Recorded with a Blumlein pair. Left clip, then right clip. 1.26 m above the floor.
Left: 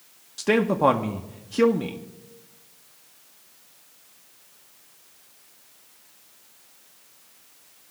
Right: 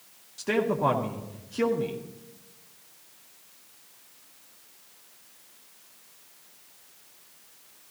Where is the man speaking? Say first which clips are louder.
Left 5 dB; 70° left, 0.8 m.